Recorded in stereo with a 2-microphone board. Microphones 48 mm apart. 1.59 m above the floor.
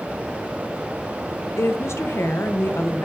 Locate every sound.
1.6 s a woman speaking: 85° left, 1.4 m